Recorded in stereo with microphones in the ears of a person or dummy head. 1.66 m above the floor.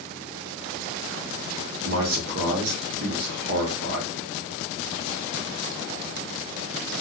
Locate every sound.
1.8 s a man speaking: 85° right, 0.9 m